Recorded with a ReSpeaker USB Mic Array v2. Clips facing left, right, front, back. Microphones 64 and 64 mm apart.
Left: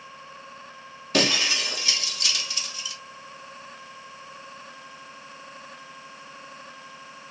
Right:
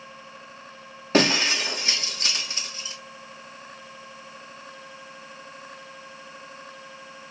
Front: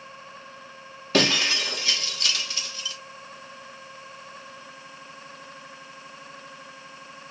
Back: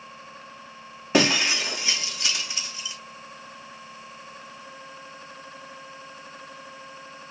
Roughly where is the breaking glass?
Behind right.